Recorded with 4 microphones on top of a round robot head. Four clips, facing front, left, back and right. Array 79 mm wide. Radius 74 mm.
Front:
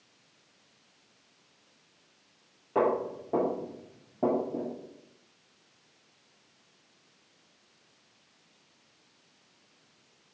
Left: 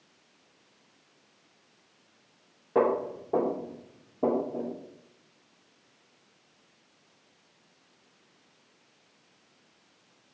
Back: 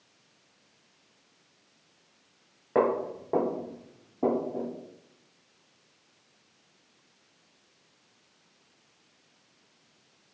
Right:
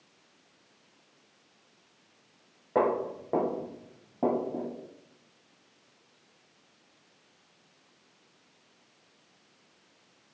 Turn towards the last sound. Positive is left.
turn(degrees=-50)